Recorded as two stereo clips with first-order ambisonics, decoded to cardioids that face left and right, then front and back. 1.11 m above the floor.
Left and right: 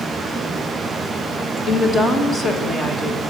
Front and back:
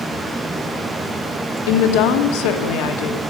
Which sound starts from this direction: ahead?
A woman speaking, at 1.7 s.